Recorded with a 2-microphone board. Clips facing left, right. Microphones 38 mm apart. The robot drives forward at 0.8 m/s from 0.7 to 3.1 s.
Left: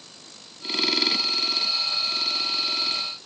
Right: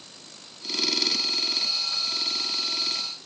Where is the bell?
No bell in this recording.